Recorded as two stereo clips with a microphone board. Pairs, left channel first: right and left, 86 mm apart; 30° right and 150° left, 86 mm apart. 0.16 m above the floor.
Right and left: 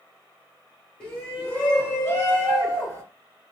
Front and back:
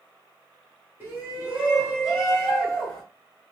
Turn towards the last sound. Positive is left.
turn(degrees=-110)